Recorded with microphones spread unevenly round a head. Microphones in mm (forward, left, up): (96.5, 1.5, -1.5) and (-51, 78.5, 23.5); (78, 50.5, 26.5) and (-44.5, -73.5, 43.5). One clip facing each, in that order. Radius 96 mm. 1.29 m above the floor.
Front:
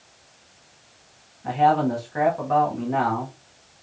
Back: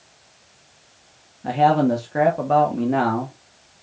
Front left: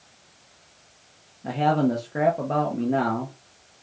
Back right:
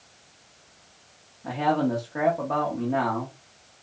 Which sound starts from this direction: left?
A man speaking, at 1.4 s.